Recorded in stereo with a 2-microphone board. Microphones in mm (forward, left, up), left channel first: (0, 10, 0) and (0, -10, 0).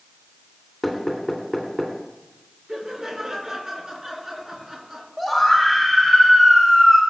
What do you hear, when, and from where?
0.8 s knocking: centre (ahead or behind), 3 m
2.7 s laughter: 25° right (ahead or behind), 5 m
5.2 s a scream: centre (ahead or behind), 2 m